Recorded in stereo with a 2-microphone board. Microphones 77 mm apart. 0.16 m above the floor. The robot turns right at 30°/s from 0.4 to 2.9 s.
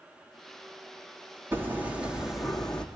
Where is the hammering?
30° right, 4.5 m; by 2.9 s 10° left, 4.5 m.